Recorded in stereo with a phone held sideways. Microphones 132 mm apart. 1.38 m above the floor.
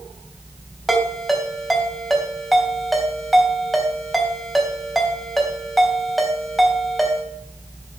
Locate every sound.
0.9 s a ringtone: centre (ahead or behind), 3 m